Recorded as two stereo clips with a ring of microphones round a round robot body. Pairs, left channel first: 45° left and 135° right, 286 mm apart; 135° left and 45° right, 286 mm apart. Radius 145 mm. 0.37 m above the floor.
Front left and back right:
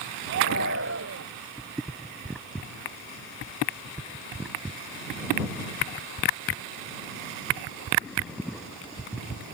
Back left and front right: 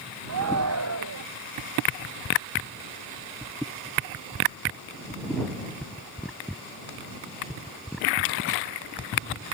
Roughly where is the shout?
Right.